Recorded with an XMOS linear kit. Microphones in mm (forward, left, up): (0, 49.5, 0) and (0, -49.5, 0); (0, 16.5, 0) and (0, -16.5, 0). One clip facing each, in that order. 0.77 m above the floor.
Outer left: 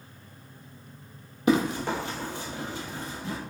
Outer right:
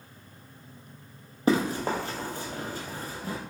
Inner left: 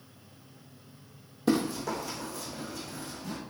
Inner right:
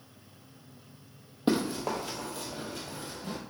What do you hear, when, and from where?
1.5 s running footsteps: 35° right (ahead or behind), 1.2 m